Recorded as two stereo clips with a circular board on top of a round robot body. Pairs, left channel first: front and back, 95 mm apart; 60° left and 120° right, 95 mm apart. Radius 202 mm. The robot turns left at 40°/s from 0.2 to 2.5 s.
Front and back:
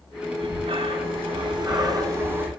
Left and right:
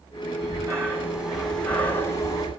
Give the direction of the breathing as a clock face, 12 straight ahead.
6 o'clock.